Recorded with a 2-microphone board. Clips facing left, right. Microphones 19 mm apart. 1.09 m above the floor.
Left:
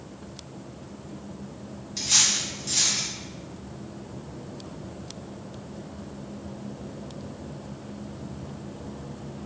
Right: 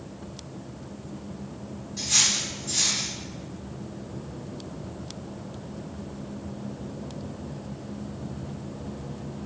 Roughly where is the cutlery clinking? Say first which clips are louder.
Left 1 dB; left.